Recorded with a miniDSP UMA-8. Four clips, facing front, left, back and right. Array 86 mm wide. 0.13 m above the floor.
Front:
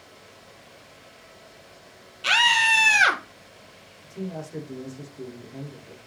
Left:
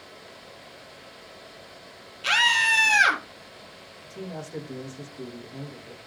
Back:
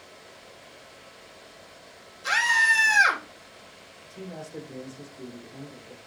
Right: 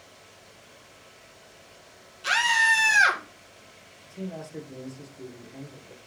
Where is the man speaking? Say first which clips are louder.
Even, front 5 dB; 55° left, 7.5 m.